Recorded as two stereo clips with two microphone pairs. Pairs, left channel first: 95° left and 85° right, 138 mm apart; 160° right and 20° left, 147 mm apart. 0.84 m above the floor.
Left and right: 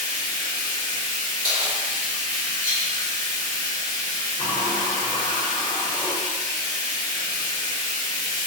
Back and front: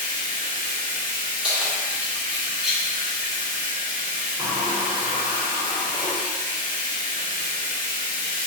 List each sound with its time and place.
0.0 s running water: 35° left, 1.3 m
1.4 s keys jangling: 65° right, 1.6 m
4.4 s a sliding door: 95° left, 1.8 m